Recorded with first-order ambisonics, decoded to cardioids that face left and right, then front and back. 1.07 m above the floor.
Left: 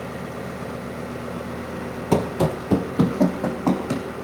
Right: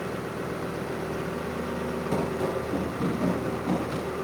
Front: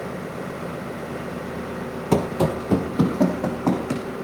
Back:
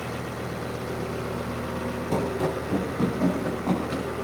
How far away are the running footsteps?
About 1.7 m.